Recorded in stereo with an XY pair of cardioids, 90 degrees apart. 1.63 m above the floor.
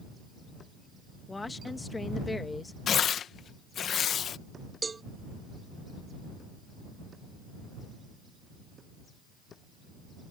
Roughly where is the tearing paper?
Ahead left.